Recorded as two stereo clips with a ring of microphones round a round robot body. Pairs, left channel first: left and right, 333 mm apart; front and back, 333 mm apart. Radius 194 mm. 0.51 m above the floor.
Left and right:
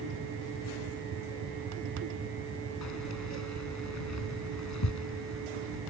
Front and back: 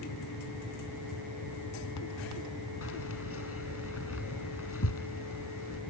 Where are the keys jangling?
50° left.